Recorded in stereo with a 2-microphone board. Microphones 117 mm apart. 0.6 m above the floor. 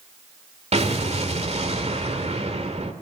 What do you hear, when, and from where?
0.7 s an explosion: 65° right (ahead or behind), 1.8 m